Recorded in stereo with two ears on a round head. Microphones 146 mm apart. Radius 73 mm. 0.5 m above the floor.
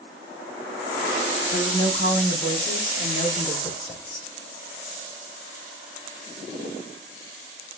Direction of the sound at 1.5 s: 55° left (ahead or behind).